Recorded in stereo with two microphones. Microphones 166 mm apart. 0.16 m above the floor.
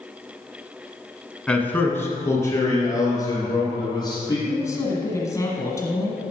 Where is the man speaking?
5° left (ahead or behind), 1.1 m; by 4.4 s 25° left (ahead or behind), 4 m.